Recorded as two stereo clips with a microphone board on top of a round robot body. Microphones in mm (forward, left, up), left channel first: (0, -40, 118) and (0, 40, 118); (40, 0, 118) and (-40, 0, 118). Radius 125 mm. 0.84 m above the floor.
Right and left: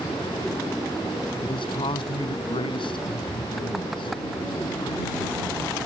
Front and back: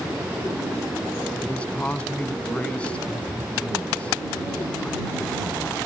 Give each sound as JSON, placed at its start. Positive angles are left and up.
{"t": 1.4, "sound": "a man speaking", "azimuth_deg": -75}